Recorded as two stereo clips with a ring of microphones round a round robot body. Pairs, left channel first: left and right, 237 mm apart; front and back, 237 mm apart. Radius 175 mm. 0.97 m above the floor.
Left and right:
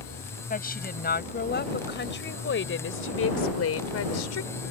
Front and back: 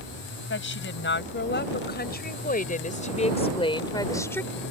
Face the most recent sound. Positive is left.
turn(degrees=85)